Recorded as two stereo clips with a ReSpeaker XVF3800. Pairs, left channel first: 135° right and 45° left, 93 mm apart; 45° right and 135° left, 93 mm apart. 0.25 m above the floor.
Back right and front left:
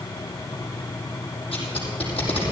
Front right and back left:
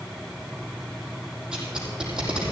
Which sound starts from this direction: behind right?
Tape being pulled, at 1.5 s.